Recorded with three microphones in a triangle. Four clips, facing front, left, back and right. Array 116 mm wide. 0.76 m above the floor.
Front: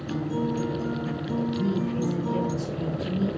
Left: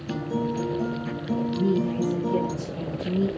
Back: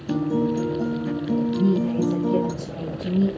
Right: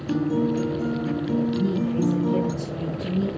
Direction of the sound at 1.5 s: 165° right.